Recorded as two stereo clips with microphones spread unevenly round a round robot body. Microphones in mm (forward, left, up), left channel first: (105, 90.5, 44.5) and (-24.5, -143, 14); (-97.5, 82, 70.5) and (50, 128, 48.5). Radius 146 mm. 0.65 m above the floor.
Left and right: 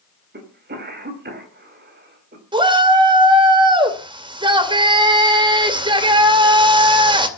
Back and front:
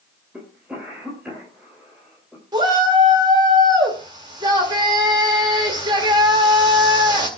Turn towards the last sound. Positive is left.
turn(degrees=-50)